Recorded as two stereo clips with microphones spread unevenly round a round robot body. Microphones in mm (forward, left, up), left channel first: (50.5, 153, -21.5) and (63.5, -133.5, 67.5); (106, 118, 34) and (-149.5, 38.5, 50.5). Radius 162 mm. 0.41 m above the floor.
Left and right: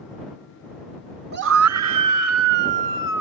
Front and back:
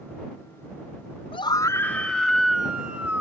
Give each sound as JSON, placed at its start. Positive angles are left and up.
{"t": 1.3, "sound": "a scream", "azimuth_deg": -30}